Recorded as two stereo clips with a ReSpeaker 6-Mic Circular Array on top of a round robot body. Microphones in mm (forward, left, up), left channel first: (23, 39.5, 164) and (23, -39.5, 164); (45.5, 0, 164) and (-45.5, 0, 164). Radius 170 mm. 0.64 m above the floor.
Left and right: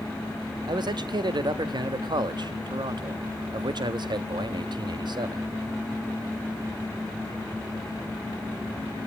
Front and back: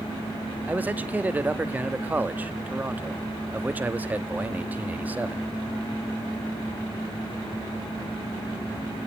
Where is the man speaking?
110° right, 1.2 m.